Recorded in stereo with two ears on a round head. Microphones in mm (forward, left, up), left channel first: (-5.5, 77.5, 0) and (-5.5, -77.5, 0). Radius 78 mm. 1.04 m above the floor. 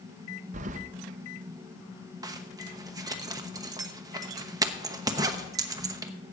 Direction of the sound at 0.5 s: 45° right (ahead or behind).